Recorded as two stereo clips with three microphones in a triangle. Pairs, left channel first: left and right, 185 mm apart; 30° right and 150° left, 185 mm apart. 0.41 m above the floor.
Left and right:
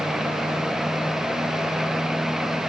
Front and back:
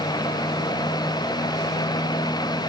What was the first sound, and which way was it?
Only background noise.